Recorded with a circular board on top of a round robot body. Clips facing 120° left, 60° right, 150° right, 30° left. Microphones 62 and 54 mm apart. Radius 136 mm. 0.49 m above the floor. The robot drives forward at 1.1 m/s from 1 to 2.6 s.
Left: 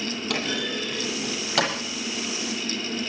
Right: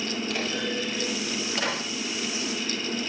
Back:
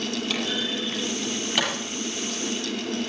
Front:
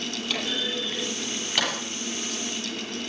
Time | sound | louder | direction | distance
0.3 | a clunk | left 2 dB, front 2 dB | 120° left | 9.5 m